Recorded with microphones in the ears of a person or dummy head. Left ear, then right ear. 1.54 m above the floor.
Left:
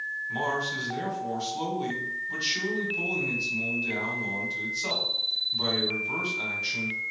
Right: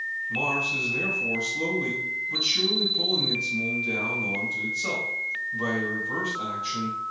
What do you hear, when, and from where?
0.3 s a man speaking: 60° left (ahead or behind), 1.5 m